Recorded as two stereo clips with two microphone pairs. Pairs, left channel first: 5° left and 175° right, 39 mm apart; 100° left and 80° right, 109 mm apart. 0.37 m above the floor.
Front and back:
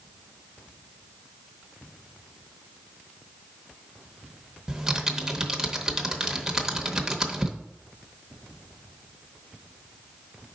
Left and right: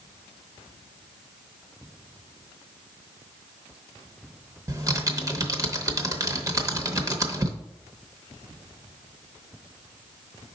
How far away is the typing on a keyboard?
About 0.8 m.